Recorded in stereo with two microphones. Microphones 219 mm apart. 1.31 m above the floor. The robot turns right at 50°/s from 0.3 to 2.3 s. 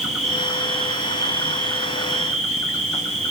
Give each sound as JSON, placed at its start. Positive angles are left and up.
{"t": 0.0, "sound": "an insect", "azimuth_deg": 180, "distance_m": 1.3}